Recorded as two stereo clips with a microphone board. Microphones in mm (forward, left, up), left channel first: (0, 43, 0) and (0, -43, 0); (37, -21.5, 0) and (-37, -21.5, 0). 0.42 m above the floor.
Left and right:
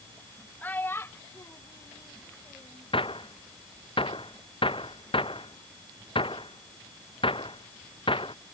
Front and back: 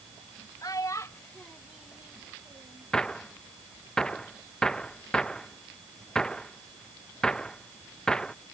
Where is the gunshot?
80° left.